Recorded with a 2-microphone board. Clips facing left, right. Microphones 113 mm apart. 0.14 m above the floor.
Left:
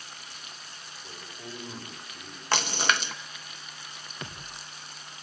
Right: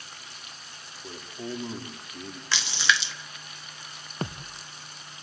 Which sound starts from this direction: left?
A splash, at 2.5 s.